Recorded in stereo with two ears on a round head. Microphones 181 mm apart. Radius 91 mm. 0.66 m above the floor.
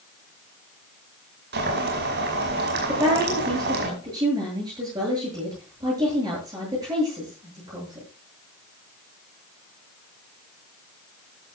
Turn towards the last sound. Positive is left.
turn(degrees=-20)  # may be behind; listen again after turning